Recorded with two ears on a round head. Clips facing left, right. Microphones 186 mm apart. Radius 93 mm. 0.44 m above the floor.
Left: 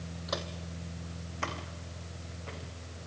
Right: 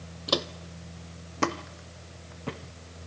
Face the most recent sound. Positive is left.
turn(degrees=-70)  # may be behind; listen again after turning